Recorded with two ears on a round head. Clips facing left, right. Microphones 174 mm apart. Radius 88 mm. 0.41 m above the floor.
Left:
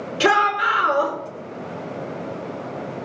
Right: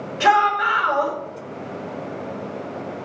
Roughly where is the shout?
Left.